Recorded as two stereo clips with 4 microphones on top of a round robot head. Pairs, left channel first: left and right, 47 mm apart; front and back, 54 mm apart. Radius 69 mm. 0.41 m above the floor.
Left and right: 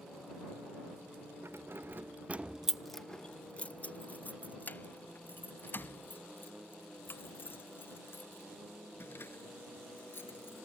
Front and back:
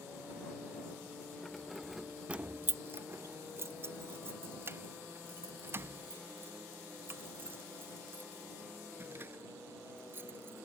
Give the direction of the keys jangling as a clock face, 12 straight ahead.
3 o'clock.